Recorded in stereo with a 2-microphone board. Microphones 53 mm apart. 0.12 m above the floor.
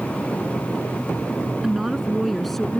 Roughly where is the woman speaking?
Centre.